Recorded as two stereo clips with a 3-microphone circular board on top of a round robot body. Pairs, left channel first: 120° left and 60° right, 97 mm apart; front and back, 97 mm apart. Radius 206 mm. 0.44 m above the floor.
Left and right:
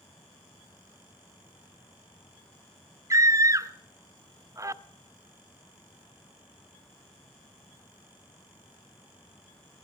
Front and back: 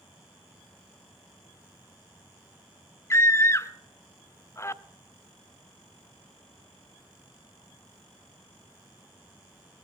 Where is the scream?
35° right, 0.8 m.